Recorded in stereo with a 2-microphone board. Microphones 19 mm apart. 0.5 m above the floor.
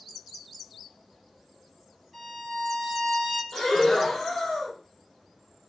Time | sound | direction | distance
2.1 | a violin | 10° right (ahead or behind) | 1.8 m
3.5 | breathing | 25° left (ahead or behind) | 1.2 m